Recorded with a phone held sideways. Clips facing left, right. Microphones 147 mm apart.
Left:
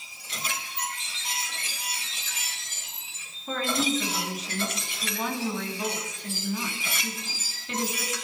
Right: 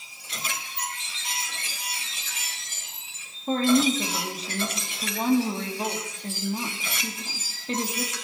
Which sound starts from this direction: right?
A woman speaking, at 3.5 s.